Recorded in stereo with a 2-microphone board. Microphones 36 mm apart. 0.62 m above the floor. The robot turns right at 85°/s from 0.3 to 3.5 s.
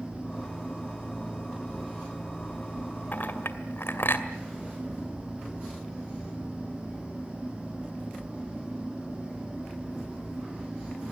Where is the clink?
50° left (ahead or behind), 2 m; by 4.3 s 75° left (ahead or behind), 2 m.